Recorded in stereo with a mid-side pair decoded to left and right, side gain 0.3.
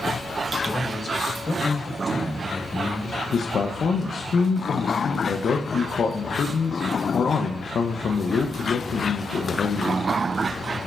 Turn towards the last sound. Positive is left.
turn(degrees=65)